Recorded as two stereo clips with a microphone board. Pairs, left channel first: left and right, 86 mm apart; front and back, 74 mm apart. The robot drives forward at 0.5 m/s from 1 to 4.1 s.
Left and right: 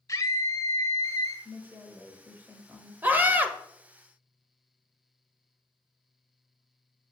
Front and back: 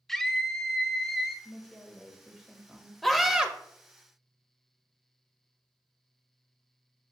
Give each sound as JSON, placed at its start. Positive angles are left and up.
{"t": 0.1, "sound": "a scream", "azimuth_deg": 85, "distance_m": 1.1}
{"t": 1.4, "sound": "a woman speaking", "azimuth_deg": -55, "distance_m": 1.3}
{"t": 3.0, "sound": "a scream", "azimuth_deg": -90, "distance_m": 0.9}